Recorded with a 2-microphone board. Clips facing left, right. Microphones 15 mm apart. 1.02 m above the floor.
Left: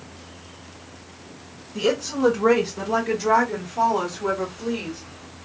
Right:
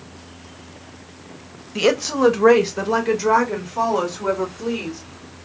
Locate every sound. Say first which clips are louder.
1.8 s a woman speaking: right 4 dB; 70° right (ahead or behind), 0.6 m; by 5.0 s 35° right (ahead or behind), 2.5 m